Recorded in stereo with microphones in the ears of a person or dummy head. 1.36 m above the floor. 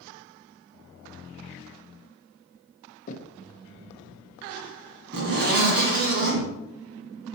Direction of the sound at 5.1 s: 50° right (ahead or behind).